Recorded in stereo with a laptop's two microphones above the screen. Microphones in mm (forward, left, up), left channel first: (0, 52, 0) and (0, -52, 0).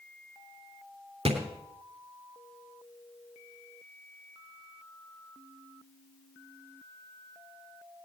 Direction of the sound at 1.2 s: 85° right.